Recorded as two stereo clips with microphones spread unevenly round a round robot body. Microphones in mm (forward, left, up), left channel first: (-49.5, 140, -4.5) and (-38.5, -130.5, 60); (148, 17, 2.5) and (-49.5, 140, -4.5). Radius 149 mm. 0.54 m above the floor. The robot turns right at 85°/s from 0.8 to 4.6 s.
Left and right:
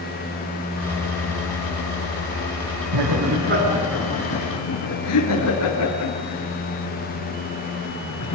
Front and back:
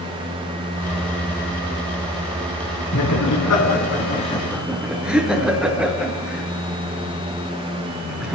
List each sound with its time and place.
2.9 s laughter: 80° right, 5 m; by 8.4 s 60° left, 5 m